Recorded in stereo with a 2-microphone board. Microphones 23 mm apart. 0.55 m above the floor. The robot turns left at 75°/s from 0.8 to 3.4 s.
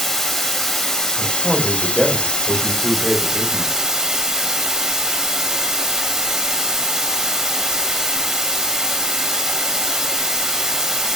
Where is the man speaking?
175° right, 1.6 m; by 3.9 s 20° left, 1.6 m.